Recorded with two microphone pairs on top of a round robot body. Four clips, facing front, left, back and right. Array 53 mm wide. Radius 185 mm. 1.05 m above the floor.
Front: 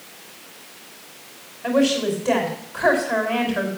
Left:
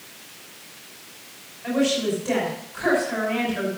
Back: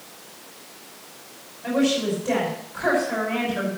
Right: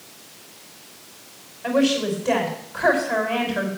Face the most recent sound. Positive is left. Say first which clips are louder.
# right 2 dB, front 3 dB
turn(degrees=-35)